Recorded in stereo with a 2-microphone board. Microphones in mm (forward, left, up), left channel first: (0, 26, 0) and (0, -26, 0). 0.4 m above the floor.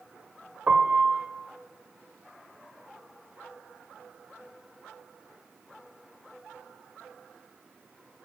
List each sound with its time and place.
0.7 s a piano: 25° right (ahead or behind), 0.7 m